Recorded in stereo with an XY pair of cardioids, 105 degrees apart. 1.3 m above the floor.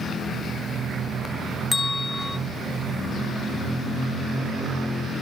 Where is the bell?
25° left, 0.6 m.